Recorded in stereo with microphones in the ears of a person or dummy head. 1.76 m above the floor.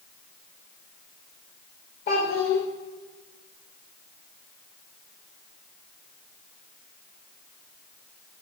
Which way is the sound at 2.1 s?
25° left (ahead or behind).